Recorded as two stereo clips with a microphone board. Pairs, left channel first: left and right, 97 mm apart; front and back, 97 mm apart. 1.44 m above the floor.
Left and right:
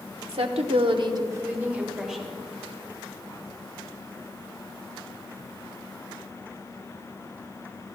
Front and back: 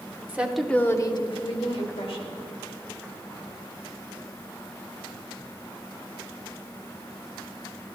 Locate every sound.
0.3 s a woman speaking: 105° right, 1.1 m; by 2.3 s straight ahead, 2 m